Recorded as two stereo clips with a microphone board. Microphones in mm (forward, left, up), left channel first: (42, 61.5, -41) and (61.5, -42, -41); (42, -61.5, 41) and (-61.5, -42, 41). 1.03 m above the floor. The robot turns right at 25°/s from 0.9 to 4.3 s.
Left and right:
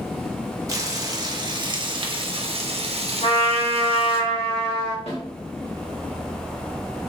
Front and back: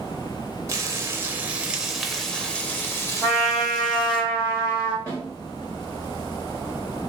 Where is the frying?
130° right, 0.6 m; by 4.2 s 50° right, 0.6 m.